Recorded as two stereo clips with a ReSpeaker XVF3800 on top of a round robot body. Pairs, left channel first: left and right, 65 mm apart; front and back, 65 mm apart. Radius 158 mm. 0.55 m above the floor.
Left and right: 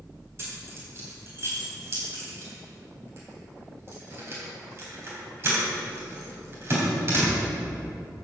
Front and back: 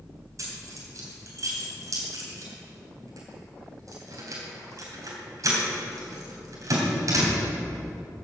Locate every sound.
0.4 s keys jangling: 145° right, 3 m